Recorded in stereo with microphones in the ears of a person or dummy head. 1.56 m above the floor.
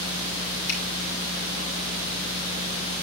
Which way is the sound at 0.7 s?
75° left (ahead or behind).